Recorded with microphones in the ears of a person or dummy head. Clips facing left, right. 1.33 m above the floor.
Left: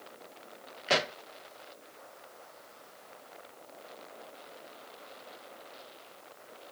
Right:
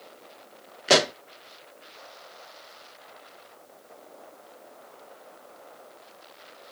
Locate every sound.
0.9 s a pop: 50° right (ahead or behind)